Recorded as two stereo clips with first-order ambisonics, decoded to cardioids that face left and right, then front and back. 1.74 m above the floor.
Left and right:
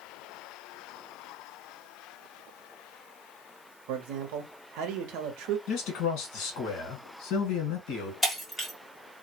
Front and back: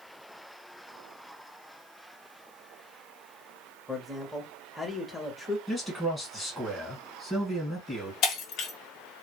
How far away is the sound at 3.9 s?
About 0.7 m.